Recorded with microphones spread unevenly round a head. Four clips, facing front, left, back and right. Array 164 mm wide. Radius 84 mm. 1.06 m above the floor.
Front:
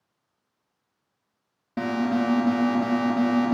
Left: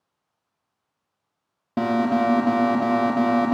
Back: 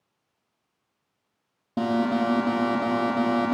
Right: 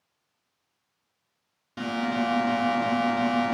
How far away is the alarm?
About 2 m.